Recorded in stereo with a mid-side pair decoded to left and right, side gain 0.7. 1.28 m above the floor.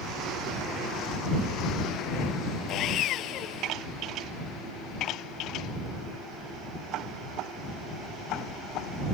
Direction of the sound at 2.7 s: 50° left.